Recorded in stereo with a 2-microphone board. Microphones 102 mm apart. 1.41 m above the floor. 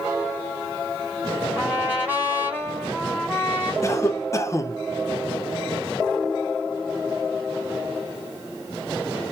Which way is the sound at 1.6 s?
20° right (ahead or behind).